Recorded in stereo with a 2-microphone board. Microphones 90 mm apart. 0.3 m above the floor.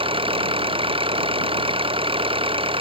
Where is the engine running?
80° right.